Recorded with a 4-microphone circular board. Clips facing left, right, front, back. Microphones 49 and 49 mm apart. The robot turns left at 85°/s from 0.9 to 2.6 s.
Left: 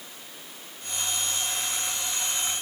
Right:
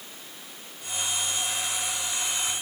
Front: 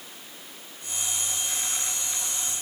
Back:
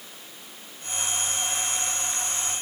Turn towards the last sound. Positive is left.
No sound to turn to.